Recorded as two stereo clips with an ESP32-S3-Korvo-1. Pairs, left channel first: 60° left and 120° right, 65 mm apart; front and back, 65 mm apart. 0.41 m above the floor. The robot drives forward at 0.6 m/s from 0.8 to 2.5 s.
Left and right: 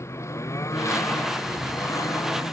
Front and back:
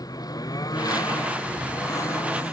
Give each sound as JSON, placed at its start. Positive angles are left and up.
{"t": 0.0, "sound": "a lawn mower", "azimuth_deg": 15}